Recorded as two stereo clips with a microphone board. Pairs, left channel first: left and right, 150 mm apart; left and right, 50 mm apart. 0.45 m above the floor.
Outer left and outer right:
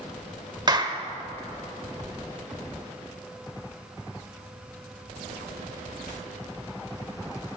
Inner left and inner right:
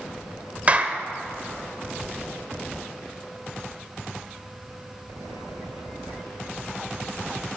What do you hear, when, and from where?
0.7 s a clap: 30° right (ahead or behind), 1.1 m